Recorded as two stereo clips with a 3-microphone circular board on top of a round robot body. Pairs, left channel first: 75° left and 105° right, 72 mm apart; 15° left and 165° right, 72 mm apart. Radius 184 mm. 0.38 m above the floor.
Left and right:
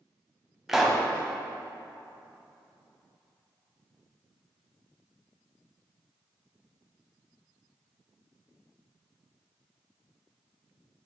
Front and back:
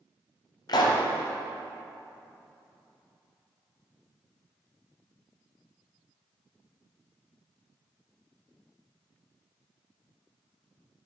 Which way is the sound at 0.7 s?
20° right.